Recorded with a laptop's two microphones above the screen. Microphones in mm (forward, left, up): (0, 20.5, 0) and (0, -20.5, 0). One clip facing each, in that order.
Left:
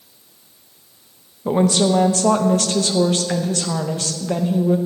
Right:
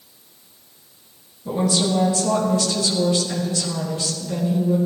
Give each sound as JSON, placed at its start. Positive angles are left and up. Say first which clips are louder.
{"t": 1.4, "sound": "a woman speaking", "louder": "left 4 dB", "side_deg": 50, "distance_m": 0.7}